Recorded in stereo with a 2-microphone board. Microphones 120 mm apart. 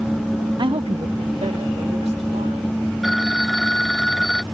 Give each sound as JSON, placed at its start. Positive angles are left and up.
{"t": 0.6, "sound": "a woman speaking", "side_deg": -40}
{"t": 3.0, "sound": "a phone ringing", "side_deg": 0}